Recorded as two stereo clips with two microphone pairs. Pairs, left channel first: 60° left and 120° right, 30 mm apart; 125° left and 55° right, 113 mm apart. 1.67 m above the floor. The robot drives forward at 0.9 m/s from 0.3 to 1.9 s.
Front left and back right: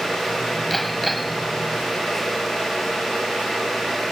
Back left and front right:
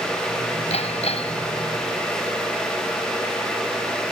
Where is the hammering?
145° left; by 1.5 s 150° left.